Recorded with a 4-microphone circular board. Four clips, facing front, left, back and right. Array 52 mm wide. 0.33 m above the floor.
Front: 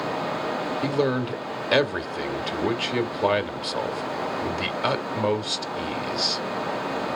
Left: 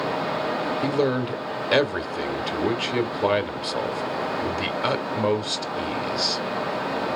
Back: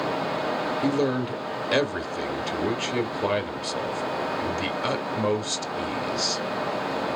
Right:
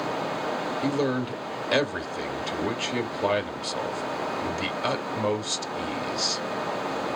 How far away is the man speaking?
About 0.9 m.